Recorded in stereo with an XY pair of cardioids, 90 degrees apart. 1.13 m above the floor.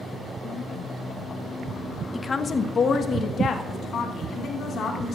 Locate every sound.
2.1 s a woman speaking: 30° left, 0.7 m; by 5.2 s 70° left, 3 m